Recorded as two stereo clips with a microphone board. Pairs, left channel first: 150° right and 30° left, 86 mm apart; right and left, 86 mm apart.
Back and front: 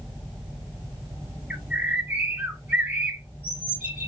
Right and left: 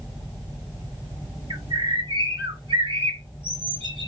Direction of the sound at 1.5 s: 105° left.